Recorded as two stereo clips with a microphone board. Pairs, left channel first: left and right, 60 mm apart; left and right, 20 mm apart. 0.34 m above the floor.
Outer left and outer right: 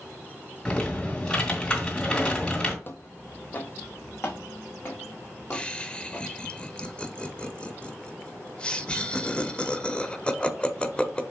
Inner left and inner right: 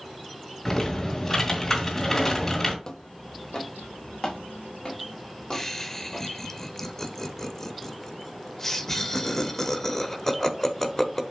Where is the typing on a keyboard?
15° left (ahead or behind), 2 m.